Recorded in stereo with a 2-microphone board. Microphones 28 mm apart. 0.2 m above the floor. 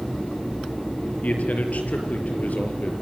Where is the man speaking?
65° left (ahead or behind), 5 m.